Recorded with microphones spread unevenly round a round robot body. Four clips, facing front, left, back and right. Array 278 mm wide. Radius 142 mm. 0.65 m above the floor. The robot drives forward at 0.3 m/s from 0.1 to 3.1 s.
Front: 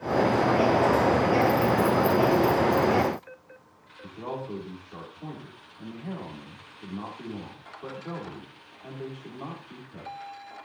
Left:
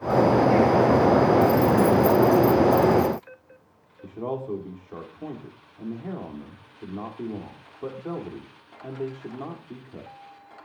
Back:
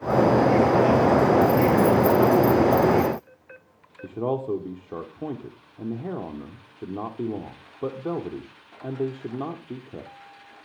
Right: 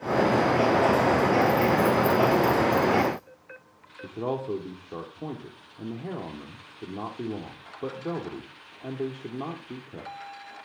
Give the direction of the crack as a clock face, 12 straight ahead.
I don't hear a crack.